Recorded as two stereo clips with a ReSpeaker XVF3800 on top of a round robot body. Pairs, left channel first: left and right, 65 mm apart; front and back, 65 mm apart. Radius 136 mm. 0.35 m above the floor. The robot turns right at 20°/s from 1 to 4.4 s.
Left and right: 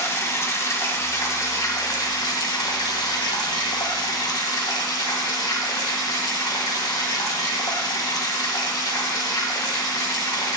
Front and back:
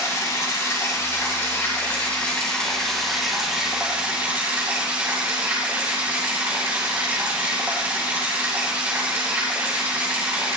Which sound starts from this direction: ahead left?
Running water, at 0.0 s.